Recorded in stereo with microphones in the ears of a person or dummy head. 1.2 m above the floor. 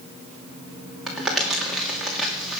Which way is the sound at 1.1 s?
Centre (ahead or behind).